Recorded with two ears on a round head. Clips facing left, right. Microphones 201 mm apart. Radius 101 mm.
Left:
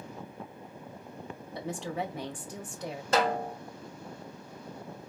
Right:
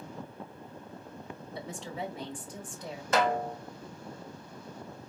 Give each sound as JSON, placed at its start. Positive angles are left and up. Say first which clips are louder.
{"t": 1.6, "sound": "a woman speaking", "louder": "left 4 dB", "side_deg": 55, "distance_m": 1.6}
{"t": 3.1, "sound": "a snare drum", "louder": "even", "side_deg": 30, "distance_m": 1.6}